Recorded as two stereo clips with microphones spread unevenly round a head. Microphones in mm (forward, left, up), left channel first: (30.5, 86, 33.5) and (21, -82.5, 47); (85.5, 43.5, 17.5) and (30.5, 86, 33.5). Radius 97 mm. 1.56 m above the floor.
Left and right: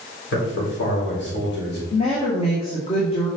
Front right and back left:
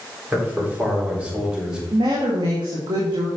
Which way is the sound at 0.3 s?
75° left.